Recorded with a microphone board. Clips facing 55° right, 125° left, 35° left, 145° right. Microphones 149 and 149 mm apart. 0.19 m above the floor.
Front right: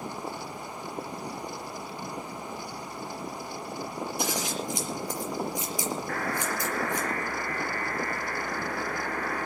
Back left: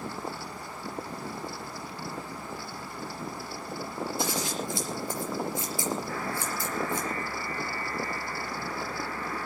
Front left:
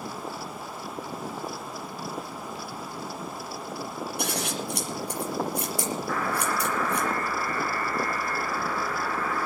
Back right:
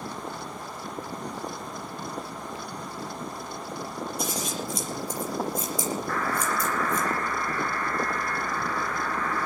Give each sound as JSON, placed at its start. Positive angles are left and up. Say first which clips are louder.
{"t": 4.2, "sound": "scissors", "louder": "front right 1 dB, front left 2 dB", "azimuth_deg": 15, "distance_m": 5.5}
{"t": 6.1, "sound": "a buzzer", "louder": "front right 2 dB, front left 2 dB", "azimuth_deg": -50, "distance_m": 3.5}